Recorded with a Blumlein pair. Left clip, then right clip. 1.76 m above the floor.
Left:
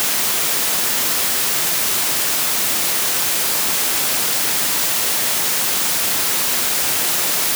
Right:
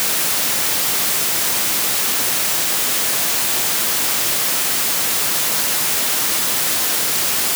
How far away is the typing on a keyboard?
No typing on a keyboard in this recording.